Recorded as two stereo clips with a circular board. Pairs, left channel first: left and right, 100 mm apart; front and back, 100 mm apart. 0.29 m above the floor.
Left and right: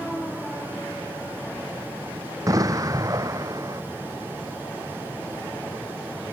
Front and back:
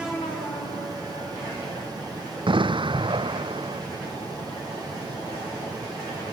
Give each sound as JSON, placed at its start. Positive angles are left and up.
{"t": 2.5, "sound": "an explosion", "azimuth_deg": -145}